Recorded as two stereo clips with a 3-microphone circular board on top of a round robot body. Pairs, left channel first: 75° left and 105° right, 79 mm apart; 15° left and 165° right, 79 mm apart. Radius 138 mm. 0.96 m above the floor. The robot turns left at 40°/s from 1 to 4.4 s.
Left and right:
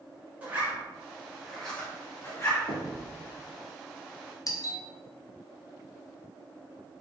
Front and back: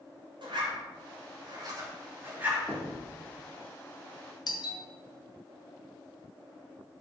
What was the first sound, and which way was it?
A zipper, 175° right.